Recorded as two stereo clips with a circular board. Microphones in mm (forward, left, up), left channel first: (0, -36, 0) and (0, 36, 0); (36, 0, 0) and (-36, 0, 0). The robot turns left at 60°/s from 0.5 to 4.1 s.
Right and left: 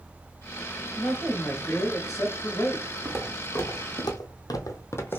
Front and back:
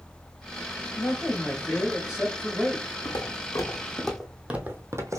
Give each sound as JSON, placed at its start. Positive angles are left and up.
{"t": 1.0, "sound": "a man speaking", "azimuth_deg": -35, "distance_m": 1.5}
{"t": 3.0, "sound": "footsteps", "azimuth_deg": 5, "distance_m": 1.6}